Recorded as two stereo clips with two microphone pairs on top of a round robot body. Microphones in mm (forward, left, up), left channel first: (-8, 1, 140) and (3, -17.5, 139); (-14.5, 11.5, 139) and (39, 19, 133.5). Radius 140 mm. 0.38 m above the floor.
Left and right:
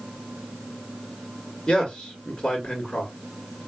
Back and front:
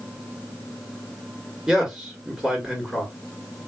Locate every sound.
1.7 s a man speaking: 90° left, 2 m